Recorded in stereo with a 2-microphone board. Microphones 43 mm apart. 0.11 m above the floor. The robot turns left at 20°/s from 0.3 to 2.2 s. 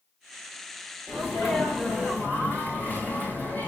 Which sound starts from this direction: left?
A sneeze, at 1.1 s.